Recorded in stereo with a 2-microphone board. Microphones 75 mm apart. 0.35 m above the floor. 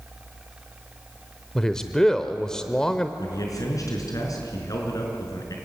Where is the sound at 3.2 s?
55° left (ahead or behind), 5 m.